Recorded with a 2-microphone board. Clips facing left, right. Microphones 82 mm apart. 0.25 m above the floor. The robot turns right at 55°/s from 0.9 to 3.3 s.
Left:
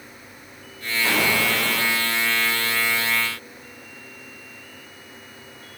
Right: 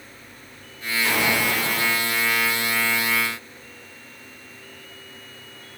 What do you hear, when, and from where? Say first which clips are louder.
1.0 s an explosion: left 1 dB; 45° left, 4 m; by 1.9 s 90° left, 4 m